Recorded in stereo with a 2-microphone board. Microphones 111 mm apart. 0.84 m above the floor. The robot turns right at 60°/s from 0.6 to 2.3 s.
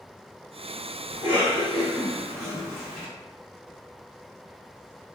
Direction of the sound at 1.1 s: 65° right (ahead or behind).